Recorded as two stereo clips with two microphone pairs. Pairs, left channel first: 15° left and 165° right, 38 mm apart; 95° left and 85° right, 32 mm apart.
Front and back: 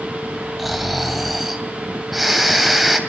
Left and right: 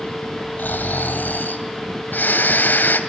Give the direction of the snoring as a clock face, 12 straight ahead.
8 o'clock.